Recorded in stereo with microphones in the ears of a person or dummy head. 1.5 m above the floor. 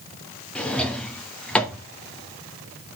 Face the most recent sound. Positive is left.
turn(degrees=10)  # may be behind; listen again after turning